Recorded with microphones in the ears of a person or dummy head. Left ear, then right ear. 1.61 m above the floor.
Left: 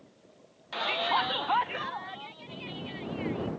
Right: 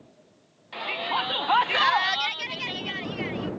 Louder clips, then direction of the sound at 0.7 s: Even; 15° left (ahead or behind).